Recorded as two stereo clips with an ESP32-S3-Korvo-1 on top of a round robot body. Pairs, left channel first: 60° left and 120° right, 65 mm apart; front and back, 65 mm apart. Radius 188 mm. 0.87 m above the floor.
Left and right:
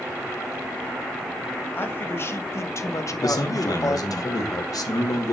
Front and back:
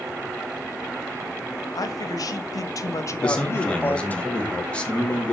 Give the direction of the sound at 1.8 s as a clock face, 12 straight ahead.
12 o'clock.